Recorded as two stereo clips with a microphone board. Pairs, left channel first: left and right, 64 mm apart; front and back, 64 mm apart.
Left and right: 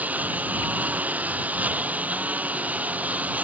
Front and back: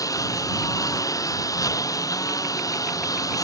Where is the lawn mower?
25° right.